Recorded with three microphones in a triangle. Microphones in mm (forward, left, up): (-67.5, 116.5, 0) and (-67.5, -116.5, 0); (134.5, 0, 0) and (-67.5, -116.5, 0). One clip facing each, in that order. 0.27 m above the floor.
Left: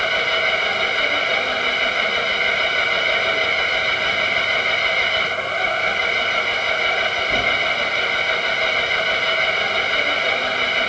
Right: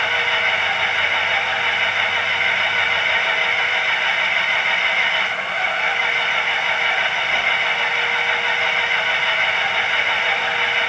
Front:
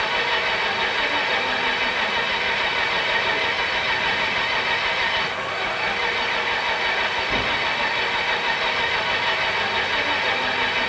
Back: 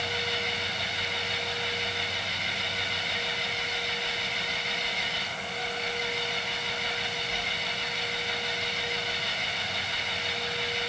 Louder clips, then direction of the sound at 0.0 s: Left 4 dB, front 6 dB; 40° left.